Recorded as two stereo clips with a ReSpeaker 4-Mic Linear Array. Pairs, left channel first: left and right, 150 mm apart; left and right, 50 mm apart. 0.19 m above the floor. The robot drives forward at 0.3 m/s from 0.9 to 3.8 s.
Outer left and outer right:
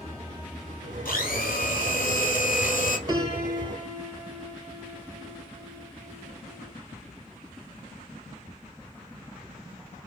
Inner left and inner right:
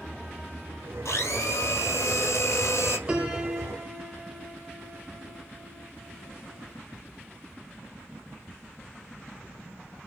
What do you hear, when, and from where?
1.1 s a blender: 80° left, 1.6 m; by 3.0 s 70° left (ahead or behind), 1.7 m
3.1 s a piano: 25° right (ahead or behind), 1.3 m